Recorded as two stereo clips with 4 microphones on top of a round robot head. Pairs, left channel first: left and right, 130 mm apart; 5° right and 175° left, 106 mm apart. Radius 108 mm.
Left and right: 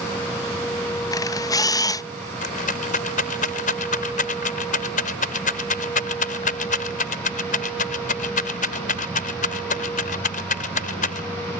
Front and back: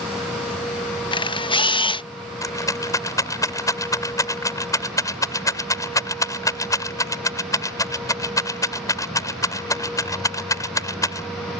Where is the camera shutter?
30° left.